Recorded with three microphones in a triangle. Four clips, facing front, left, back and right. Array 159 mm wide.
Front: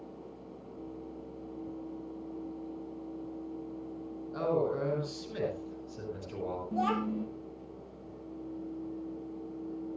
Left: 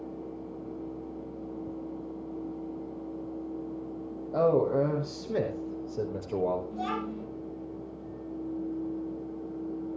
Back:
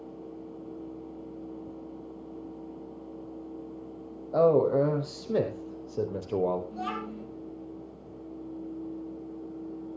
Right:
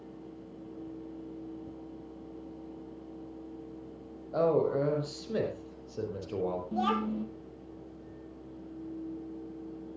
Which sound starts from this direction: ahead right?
A child speaking, at 6.7 s.